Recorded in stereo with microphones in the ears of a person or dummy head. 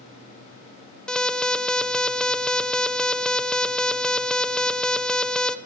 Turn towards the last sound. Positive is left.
turn(degrees=0)  # may be behind; listen again after turning